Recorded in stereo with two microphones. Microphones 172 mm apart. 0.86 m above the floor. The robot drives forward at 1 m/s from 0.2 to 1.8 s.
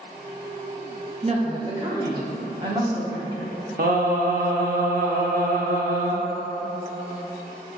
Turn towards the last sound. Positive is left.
turn(degrees=-60)  # may be behind; listen again after turning